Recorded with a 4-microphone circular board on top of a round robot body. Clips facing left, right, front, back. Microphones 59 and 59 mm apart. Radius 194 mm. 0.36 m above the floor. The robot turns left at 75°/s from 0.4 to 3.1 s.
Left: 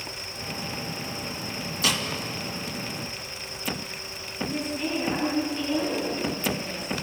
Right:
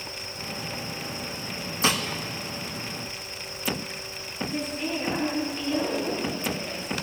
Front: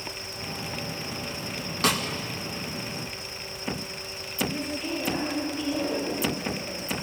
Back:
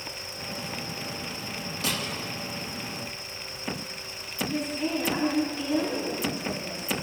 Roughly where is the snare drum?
Ahead right.